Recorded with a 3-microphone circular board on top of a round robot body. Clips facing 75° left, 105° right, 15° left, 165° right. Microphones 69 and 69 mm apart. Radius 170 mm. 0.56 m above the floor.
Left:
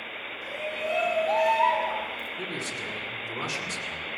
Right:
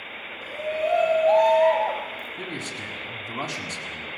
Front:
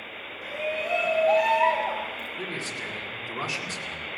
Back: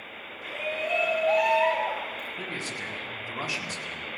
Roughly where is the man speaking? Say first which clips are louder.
Right 1 dB, front 3 dB; right.